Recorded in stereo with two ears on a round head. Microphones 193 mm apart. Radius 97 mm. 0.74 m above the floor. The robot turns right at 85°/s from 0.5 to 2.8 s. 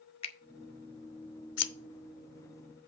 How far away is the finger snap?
About 0.7 m.